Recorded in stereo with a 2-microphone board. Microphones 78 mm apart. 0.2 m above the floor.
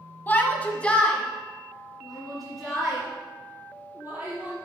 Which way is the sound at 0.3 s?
25° left (ahead or behind).